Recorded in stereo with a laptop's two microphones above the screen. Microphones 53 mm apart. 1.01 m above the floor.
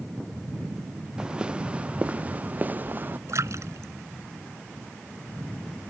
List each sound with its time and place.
1.2 s footsteps: 15° right (ahead or behind); by 3.2 s 40° right (ahead or behind)
3.3 s a splash: 65° right (ahead or behind)